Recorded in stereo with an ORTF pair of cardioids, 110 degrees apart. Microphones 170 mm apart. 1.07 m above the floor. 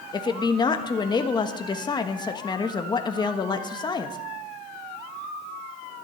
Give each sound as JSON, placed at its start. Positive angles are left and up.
{"t": 0.1, "sound": "a woman speaking", "azimuth_deg": 25, "distance_m": 1.3}